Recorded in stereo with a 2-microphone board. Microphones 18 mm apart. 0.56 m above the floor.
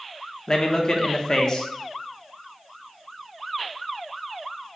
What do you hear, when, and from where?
0.5 s a man speaking: 35° left (ahead or behind), 0.7 m